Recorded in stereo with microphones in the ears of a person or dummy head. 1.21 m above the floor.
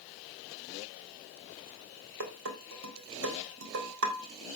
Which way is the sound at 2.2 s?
65° right (ahead or behind).